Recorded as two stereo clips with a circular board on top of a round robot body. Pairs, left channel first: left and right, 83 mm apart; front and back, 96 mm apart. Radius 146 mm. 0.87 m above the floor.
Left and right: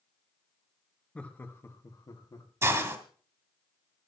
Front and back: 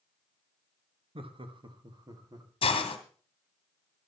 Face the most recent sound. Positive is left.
turn(degrees=-30)